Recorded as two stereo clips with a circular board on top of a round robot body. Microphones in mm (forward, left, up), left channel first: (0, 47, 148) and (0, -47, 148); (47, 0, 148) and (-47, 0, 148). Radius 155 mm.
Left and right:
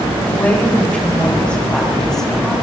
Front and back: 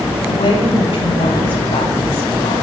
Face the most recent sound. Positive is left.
turn(degrees=5)